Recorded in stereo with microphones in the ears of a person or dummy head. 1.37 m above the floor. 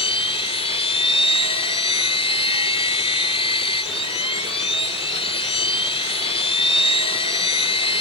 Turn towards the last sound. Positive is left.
turn(degrees=30)  # may be behind; listen again after turning